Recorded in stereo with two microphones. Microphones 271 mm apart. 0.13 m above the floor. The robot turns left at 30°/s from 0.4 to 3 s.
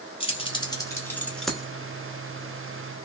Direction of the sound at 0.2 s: 20° left (ahead or behind).